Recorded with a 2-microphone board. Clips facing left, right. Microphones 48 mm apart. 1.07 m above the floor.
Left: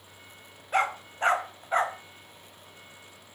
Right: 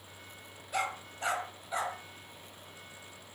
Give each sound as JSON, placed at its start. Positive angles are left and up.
{"t": 0.7, "sound": "a dog barking", "side_deg": 45, "distance_m": 1.3}